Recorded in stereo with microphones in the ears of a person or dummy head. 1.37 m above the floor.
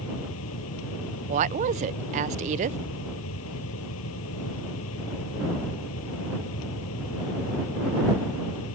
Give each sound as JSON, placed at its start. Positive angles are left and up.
{"t": 0.0, "sound": "a fan", "side_deg": 75}
{"t": 1.3, "sound": "a woman speaking", "side_deg": -40}